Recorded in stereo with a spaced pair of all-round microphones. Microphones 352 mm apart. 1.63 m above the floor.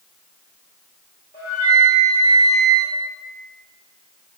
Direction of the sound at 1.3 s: 25° left (ahead or behind).